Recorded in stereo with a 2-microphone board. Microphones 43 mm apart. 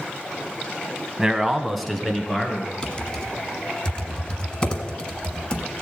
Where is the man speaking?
10° right (ahead or behind), 1.0 m; by 2.7 s 10° left (ahead or behind), 3 m.